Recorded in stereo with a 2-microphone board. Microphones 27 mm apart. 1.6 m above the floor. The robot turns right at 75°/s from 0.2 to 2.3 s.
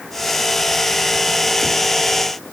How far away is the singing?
I don't hear singing.